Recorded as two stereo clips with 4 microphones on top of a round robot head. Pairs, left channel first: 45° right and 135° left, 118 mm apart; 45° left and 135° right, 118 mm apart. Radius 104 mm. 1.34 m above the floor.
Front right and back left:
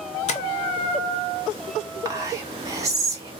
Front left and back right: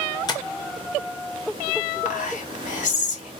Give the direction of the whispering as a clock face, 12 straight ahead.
10 o'clock.